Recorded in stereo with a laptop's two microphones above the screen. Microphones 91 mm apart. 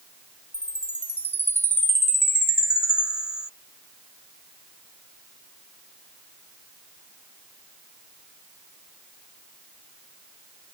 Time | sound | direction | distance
0.5 | a chime | 25° left (ahead or behind) | ?